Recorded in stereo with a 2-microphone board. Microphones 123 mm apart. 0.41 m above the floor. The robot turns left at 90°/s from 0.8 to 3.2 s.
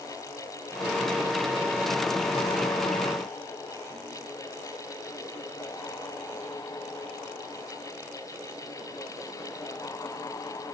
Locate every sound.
Only background noise.